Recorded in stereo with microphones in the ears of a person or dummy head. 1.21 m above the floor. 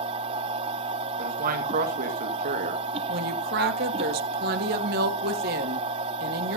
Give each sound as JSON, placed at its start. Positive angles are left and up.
{"t": 0.0, "sound": "a machine running", "side_deg": -30, "distance_m": 0.7}
{"t": 1.2, "sound": "a man speaking", "side_deg": -50, "distance_m": 1.6}
{"t": 3.1, "sound": "a woman speaking", "side_deg": -45, "distance_m": 1.3}